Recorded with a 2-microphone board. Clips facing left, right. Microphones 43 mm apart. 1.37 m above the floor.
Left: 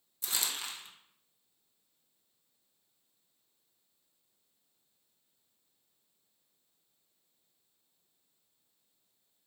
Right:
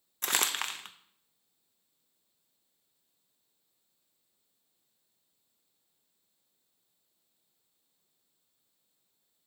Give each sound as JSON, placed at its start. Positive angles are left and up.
{"t": 0.2, "sound": "crumpling", "side_deg": -55, "distance_m": 0.6}